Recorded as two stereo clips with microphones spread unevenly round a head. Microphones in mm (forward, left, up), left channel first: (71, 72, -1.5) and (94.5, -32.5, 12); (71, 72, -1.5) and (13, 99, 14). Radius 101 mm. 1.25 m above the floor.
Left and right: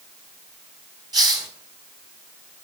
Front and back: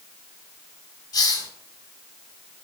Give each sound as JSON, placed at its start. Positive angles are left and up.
{"t": 1.1, "sound": "a hiss", "azimuth_deg": -35, "distance_m": 2.0}